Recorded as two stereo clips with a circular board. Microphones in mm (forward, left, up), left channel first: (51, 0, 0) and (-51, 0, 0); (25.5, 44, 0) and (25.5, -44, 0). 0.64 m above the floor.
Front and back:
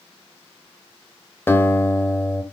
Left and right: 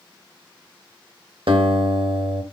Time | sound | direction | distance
1.5 | a guitar | 70° right | 0.8 m